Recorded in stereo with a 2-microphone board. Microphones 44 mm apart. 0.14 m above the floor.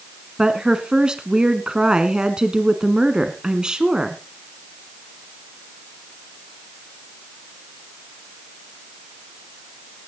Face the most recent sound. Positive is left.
turn(degrees=-15)  # may be behind; listen again after turning